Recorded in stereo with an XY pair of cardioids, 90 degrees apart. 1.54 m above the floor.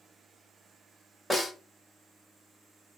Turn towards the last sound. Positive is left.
turn(degrees=5)